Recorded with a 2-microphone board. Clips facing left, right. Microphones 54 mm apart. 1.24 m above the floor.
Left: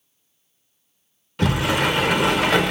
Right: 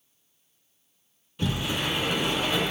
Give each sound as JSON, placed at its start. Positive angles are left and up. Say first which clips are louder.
{"t": 1.4, "sound": "a sliding door", "louder": "left 8 dB", "side_deg": 70, "distance_m": 0.6}